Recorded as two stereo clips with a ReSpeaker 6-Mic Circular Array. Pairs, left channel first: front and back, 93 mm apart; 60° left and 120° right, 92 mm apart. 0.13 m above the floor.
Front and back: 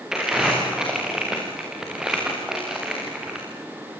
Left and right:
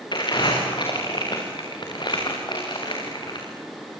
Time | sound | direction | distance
0.1 | crumpling | 95° left | 7 m